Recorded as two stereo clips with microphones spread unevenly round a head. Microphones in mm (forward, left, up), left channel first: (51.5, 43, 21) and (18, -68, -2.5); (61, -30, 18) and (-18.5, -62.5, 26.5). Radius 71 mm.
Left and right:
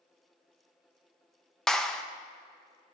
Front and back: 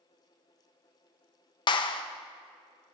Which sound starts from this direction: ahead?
A clap, at 1.7 s.